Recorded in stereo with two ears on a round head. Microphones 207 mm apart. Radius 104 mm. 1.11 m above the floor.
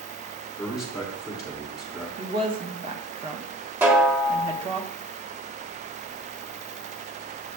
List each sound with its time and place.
0.6 s a man speaking: 5° right (ahead or behind), 2.5 m
2.2 s a woman speaking: 25° right (ahead or behind), 1.1 m
3.8 s a snare drum: 10° right (ahead or behind), 0.9 m